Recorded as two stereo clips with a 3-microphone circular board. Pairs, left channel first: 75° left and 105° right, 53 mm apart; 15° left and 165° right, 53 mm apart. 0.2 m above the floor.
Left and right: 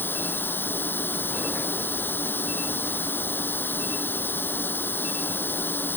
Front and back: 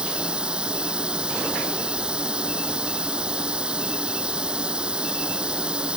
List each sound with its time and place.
0.0 s running water: 125° left